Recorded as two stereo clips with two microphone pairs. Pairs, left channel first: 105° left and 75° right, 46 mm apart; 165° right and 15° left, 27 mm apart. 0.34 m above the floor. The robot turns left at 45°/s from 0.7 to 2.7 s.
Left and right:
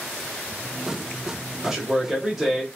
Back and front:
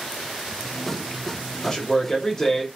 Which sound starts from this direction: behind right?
A man speaking, at 1.6 s.